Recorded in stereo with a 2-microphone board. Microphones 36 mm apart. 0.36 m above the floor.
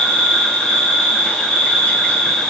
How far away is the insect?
About 2 m.